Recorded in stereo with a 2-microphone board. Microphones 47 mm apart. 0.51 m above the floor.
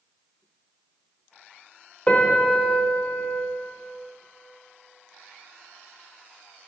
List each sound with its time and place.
2.1 s a piano: 25° left (ahead or behind), 0.9 m